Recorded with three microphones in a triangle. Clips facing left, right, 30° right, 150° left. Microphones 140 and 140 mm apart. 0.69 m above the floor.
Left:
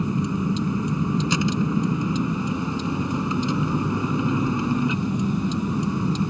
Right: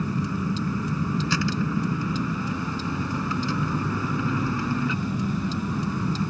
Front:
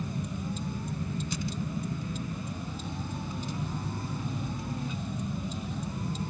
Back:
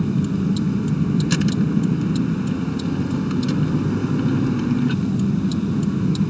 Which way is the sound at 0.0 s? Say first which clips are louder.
Left 3 dB, back 15 dB; 160° left.